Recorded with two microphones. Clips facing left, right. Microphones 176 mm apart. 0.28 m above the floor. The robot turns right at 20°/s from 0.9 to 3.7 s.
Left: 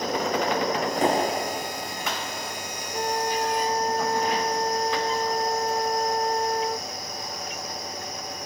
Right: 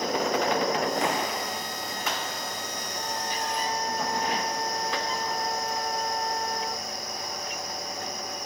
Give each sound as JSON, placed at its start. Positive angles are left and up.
{"t": 1.0, "sound": "a clap", "side_deg": 35}
{"t": 2.9, "sound": "a flute", "side_deg": 60}